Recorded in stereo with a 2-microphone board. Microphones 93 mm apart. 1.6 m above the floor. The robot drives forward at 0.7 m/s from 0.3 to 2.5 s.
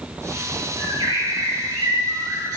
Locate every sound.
0.8 s a bird: 65° right (ahead or behind), 2.0 m; by 2.6 s 40° right (ahead or behind), 2.5 m